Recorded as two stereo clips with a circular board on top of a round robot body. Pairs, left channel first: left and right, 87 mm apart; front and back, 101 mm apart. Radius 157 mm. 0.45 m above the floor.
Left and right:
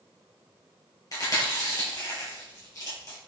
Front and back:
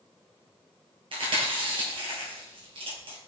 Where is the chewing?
145° left, 2 m.